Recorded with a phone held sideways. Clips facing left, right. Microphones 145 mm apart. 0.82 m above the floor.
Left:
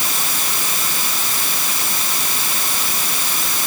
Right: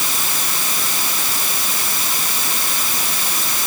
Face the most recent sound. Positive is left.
No sound to turn to.